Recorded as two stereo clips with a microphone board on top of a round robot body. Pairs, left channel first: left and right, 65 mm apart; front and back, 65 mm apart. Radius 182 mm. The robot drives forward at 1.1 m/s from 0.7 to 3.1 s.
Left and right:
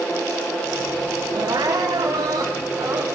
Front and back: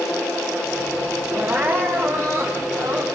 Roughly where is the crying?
Behind right.